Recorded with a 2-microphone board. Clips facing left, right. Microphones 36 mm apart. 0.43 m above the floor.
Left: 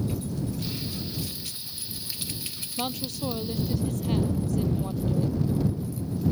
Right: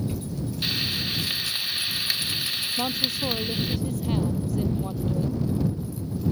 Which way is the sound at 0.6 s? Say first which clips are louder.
Right 7 dB; 85° right.